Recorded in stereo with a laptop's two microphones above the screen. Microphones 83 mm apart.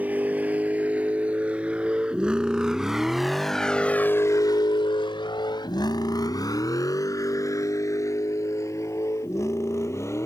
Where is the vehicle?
20° right (ahead or behind); by 10.3 s 35° left (ahead or behind).